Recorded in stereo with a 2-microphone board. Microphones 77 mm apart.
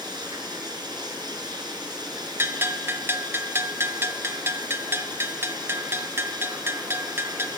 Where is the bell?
30° right (ahead or behind), 0.9 m.